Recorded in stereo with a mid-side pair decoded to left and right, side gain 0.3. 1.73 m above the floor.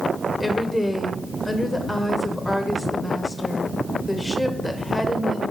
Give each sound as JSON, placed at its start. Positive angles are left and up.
{"t": 0.4, "sound": "a woman speaking", "azimuth_deg": 10, "distance_m": 1.4}